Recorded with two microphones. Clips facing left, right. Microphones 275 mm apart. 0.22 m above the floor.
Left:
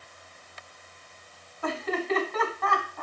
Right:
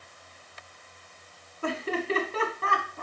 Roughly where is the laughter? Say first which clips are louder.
Even; right.